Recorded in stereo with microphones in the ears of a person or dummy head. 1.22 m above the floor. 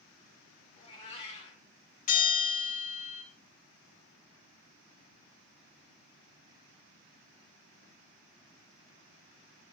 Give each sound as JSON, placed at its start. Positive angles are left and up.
{"t": 0.8, "sound": "a cat meowing", "side_deg": 25, "distance_m": 2.0}
{"t": 2.1, "sound": "a bell", "side_deg": 40, "distance_m": 2.5}